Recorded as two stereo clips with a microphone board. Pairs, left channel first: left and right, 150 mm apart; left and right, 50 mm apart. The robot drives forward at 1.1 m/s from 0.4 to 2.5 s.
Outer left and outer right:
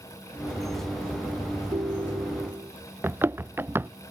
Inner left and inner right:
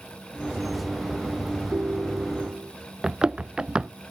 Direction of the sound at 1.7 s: 35° right (ahead or behind).